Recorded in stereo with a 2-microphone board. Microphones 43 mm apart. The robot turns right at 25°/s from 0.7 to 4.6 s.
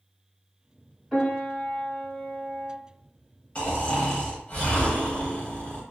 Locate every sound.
1.1 s a piano: 165° right, 1.9 m; by 2.8 s 120° right, 1.9 m
3.5 s snoring: 25° left (ahead or behind), 1.1 m; by 5.8 s 35° left (ahead or behind), 1.1 m